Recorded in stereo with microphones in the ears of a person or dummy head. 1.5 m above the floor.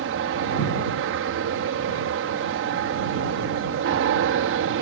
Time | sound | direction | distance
0.0 | an aircraft | 60° right (ahead or behind) | ?